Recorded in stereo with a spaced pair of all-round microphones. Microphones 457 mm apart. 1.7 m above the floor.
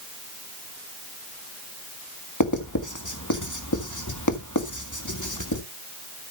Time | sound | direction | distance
2.4 | writing | 40° left (ahead or behind) | 1.7 m